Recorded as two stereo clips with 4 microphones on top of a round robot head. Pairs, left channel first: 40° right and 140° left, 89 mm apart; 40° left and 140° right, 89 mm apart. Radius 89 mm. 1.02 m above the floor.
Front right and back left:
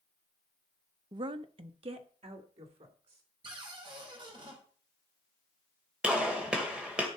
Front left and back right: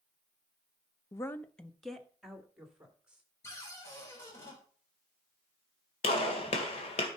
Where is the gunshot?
60° left, 2 m.